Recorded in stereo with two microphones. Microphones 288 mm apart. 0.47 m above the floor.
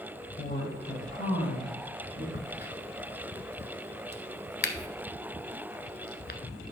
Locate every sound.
0.4 s a woman speaking: 30° left (ahead or behind), 3.5 m; by 2.2 s 45° left (ahead or behind), 4.5 m
2.3 s a crack: 40° left (ahead or behind), 1.0 m